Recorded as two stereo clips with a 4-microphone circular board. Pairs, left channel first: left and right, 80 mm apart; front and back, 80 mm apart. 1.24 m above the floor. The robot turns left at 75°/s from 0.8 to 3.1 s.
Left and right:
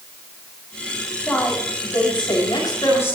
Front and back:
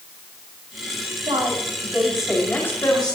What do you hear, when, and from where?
1.3 s a woman speaking: 165° left, 6.5 m; by 3.2 s 25° left, 6.5 m